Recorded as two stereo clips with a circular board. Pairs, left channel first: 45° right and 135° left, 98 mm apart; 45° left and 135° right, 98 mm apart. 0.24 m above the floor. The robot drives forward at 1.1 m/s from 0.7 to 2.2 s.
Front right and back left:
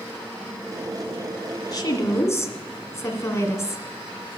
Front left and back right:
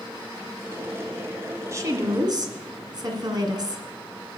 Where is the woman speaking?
80° right, 1.9 m; by 3.9 s 100° right, 1.9 m.